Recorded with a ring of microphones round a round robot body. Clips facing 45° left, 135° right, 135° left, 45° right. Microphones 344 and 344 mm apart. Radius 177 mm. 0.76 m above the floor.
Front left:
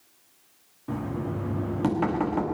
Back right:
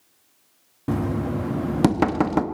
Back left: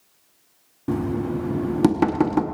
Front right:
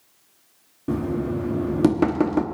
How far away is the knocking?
About 1.0 m.